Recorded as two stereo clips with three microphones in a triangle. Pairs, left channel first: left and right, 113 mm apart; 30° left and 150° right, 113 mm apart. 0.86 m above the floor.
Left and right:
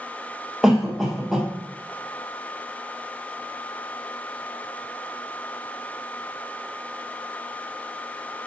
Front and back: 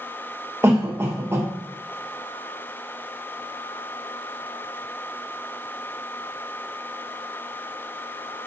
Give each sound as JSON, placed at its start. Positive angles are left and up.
{"t": 0.6, "sound": "a cough", "azimuth_deg": -170, "distance_m": 0.9}